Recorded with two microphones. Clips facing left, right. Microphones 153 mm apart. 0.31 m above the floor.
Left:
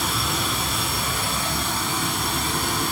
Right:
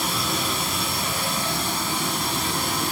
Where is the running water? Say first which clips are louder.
Even; 25° right (ahead or behind), 1.7 m.